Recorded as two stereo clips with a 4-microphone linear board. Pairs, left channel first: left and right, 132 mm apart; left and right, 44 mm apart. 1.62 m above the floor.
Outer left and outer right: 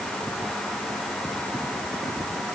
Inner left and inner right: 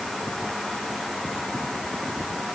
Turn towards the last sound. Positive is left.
No sound to turn to.